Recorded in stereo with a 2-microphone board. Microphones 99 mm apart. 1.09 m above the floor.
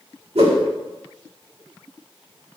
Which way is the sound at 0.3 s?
80° right.